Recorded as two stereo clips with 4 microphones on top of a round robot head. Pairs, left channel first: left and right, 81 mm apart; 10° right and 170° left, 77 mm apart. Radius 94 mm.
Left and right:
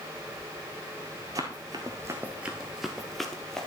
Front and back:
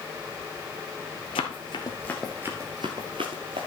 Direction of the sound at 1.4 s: 30° right.